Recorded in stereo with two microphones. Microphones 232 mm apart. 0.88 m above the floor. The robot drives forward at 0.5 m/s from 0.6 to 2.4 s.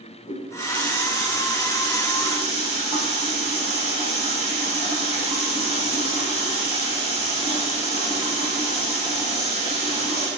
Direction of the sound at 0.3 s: 40° left (ahead or behind).